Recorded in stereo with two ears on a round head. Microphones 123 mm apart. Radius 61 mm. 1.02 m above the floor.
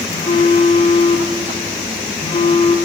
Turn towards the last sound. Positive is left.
turn(degrees=40)  # may be behind; listen again after turning